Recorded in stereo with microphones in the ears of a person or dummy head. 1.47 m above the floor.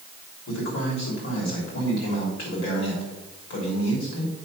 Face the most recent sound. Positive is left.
turn(degrees=70)  # may be behind; listen again after turning